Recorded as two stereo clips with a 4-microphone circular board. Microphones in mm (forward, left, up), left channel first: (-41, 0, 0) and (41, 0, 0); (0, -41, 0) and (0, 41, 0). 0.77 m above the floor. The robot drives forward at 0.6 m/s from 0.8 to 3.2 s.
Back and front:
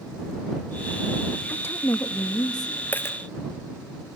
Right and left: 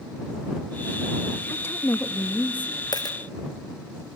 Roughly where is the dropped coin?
Right.